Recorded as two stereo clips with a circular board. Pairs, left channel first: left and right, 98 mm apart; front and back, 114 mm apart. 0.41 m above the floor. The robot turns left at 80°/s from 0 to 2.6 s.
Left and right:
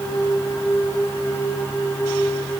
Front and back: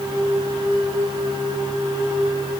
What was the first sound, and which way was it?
Only background noise.